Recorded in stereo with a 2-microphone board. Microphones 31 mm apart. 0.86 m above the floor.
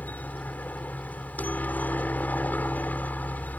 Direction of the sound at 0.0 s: 60° left (ahead or behind).